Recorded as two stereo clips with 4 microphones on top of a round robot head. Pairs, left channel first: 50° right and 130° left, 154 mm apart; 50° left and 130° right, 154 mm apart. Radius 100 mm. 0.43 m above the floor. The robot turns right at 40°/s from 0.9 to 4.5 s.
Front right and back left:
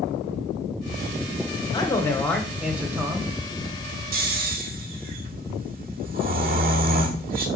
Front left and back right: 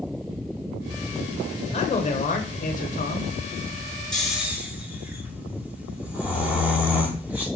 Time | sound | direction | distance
1.7 | a man speaking | 10° left | 1.3 m
4.1 | snoring | 135° left | 1.9 m